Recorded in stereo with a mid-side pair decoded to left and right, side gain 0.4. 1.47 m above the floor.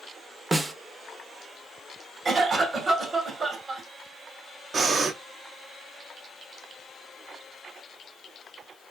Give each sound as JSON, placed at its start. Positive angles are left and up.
{"t": 0.5, "sound": "a snare drum", "azimuth_deg": -30, "distance_m": 0.7}
{"t": 2.2, "sound": "a cough", "azimuth_deg": -50, "distance_m": 1.3}
{"t": 4.7, "sound": "breathing", "azimuth_deg": -50, "distance_m": 0.7}